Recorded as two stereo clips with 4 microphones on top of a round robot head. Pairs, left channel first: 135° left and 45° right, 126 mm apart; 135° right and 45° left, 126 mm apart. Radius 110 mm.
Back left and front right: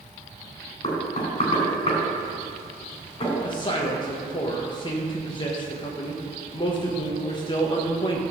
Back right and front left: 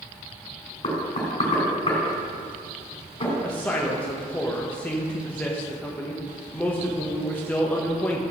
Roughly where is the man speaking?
Behind left.